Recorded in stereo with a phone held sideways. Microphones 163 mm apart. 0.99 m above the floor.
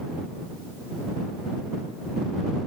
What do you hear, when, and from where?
Only background noise.